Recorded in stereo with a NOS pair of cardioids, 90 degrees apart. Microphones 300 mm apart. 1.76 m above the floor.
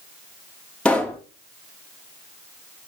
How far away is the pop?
About 3 m.